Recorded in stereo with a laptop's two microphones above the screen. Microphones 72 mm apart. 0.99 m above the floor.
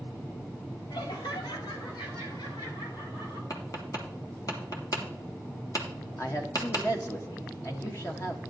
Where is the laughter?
75° left (ahead or behind), 1.9 m; by 3.4 s 90° left, 5 m.